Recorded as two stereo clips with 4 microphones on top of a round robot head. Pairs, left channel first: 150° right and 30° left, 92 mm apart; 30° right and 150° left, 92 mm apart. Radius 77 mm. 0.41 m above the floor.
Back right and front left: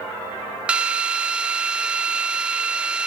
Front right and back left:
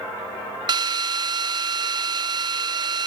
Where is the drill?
110° left, 0.7 m.